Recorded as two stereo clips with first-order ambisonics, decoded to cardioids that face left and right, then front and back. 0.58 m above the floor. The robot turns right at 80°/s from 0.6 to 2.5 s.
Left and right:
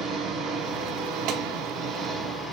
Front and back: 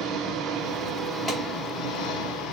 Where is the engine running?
135° right, 5 m; by 2.5 s 15° left, 5 m.